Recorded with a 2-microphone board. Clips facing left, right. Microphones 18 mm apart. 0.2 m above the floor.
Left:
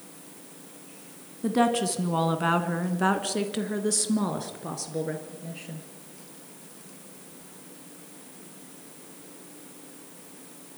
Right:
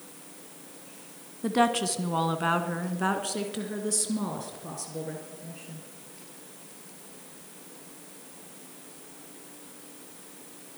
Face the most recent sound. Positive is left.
turn(degrees=35)  # may be behind; listen again after turning